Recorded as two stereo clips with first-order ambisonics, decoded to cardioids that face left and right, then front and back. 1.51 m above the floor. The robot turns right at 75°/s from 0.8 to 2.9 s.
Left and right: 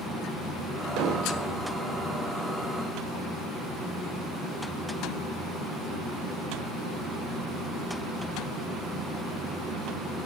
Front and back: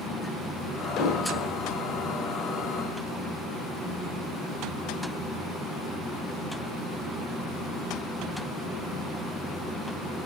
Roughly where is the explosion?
Ahead right.